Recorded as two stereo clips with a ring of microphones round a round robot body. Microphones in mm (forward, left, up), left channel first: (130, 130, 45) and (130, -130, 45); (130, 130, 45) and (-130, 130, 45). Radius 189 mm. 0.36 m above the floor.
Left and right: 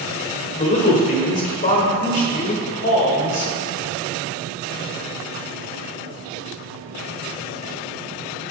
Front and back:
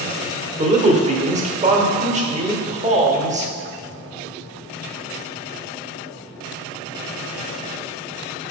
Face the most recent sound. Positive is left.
turn(degrees=135)